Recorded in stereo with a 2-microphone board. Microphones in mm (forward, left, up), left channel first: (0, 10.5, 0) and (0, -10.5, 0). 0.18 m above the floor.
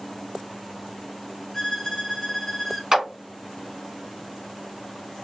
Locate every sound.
1.5 s a violin: 15° left (ahead or behind), 0.6 m
2.9 s a clap: 25° right (ahead or behind), 1.7 m